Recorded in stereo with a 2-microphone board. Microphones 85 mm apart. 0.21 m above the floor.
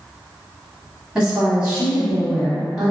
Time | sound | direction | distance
1.1 | a woman speaking | 10° right (ahead or behind) | 1.2 m